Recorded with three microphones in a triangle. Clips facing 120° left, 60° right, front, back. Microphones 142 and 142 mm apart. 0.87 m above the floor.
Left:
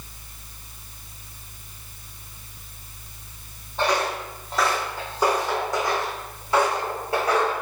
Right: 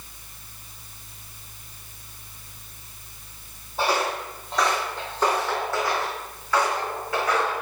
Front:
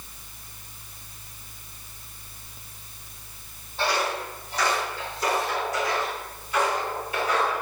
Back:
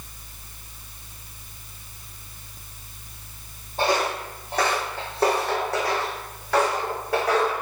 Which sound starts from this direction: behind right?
Footsteps, at 3.8 s.